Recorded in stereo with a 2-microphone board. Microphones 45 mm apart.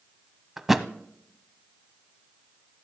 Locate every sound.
0.6 s a thud: 5° right (ahead or behind), 0.6 m